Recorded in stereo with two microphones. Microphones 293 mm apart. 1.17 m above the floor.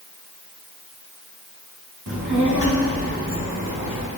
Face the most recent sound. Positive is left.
turn(degrees=-80)